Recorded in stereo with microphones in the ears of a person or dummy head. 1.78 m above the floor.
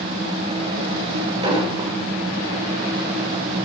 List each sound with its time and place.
1.4 s an explosion: 25° right (ahead or behind), 6 m